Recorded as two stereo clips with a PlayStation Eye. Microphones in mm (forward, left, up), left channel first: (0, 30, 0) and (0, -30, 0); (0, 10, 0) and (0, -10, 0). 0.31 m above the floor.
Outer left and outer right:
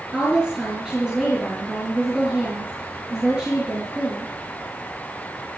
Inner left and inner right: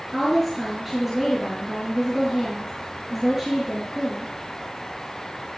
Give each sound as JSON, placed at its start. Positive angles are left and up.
{"t": 0.1, "sound": "a woman speaking", "side_deg": -15, "distance_m": 5.5}